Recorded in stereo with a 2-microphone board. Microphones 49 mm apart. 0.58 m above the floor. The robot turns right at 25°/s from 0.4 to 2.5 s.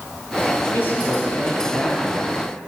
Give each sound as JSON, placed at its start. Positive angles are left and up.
{"t": 0.7, "sound": "a man speaking", "azimuth_deg": 130, "distance_m": 5.0}